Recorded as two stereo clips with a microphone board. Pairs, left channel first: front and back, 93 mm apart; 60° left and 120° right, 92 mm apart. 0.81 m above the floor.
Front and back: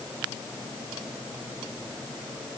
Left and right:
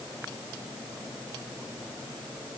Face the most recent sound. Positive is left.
No sound to turn to.